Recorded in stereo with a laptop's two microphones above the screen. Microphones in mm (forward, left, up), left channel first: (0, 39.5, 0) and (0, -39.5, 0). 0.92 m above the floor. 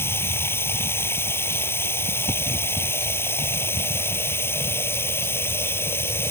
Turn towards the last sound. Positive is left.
turn(degrees=30)  # may be behind; listen again after turning